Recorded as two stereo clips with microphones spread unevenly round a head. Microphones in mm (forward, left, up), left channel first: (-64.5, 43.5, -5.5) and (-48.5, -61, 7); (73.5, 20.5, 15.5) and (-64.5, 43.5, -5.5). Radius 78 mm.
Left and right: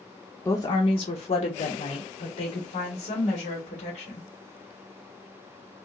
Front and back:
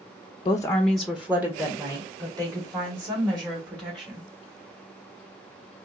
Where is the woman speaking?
45° left, 0.6 m; by 4.3 s 115° left, 3.5 m.